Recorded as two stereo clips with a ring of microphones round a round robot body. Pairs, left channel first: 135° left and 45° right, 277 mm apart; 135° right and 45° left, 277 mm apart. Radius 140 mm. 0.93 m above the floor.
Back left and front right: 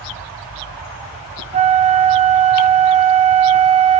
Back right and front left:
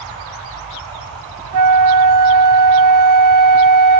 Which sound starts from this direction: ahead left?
A flute, at 1.5 s.